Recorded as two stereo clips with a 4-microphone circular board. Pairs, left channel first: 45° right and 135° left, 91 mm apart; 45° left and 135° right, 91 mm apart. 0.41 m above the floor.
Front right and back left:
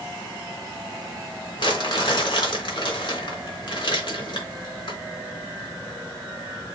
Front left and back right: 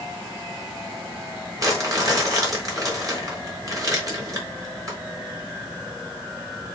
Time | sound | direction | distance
1.6 | crumpling | 80° right | 3.5 m